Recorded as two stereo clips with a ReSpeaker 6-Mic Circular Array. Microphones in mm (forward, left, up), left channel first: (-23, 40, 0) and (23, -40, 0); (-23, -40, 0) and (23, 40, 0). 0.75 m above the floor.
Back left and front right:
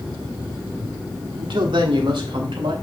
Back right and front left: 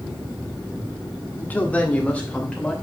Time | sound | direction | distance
1.4 | a man speaking | 55° right | 1.6 m